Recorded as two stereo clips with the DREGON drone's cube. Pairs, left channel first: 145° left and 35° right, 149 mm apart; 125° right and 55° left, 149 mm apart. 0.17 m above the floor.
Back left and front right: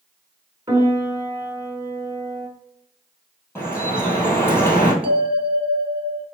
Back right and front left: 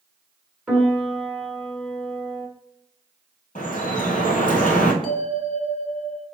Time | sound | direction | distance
0.7 | a piano | 15° right | 0.9 m
3.5 | dripping | 140° right | 1.4 m
5.0 | a bell | 10° left | 1.0 m